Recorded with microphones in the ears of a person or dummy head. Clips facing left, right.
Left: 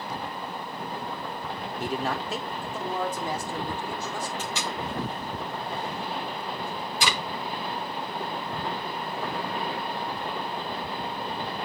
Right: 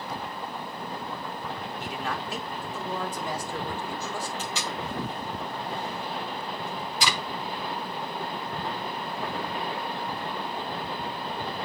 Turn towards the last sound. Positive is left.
turn(degrees=45)  # may be behind; listen again after turning